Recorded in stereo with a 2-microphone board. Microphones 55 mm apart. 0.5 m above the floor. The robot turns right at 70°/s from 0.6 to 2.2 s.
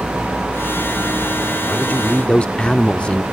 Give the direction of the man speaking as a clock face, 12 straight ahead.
9 o'clock.